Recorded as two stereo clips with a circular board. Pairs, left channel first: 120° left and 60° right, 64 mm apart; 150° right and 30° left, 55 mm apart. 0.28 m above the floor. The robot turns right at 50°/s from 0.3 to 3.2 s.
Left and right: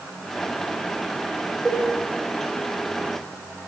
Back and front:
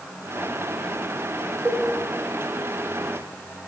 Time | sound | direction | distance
1.6 | a cowbell | 40° left | 0.8 m